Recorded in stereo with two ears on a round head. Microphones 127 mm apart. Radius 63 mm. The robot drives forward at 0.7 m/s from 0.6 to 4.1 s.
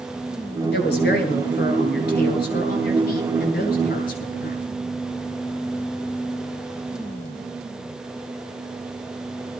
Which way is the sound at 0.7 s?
85° left.